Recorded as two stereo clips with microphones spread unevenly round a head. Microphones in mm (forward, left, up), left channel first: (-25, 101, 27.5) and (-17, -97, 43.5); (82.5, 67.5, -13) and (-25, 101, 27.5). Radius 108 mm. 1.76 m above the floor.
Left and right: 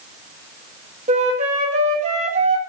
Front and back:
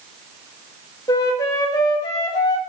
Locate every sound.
1.1 s a flute: 95° right, 1.2 m